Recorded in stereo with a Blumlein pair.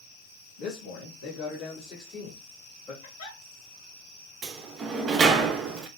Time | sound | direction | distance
0.6 | a man speaking | 55° left | 2.5 m
3.0 | a giggle | 55° left | 1.9 m
4.4 | a sliding door | 25° right | 0.6 m